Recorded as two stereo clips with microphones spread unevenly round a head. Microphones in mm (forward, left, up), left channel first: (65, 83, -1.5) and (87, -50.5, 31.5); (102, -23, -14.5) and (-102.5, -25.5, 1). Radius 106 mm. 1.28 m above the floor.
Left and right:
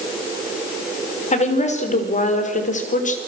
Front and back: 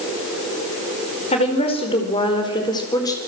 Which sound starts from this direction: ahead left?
A woman speaking, at 1.3 s.